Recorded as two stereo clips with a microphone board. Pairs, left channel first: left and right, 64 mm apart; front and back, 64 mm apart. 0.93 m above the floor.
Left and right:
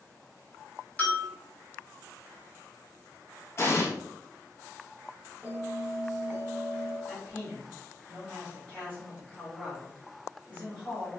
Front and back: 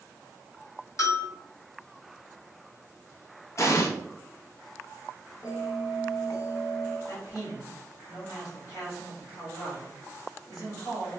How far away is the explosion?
About 0.8 m.